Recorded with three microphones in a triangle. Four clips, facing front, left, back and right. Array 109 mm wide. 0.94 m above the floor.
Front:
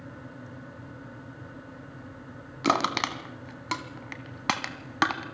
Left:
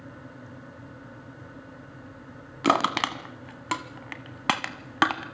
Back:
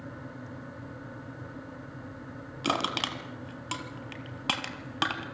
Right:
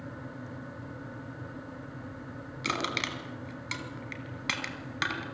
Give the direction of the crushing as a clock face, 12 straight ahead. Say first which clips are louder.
Left 10 dB, front 5 dB; 10 o'clock.